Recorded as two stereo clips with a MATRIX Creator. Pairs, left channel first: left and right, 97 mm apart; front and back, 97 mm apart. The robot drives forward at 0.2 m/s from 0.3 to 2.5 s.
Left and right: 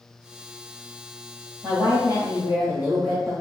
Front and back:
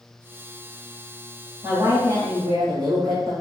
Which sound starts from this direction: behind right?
A woman speaking, at 1.6 s.